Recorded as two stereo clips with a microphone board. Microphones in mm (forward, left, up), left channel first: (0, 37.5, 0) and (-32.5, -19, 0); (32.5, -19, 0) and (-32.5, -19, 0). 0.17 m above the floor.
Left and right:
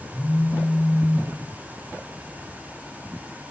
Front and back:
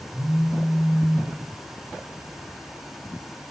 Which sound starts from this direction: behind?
A phone buzzing, at 0.1 s.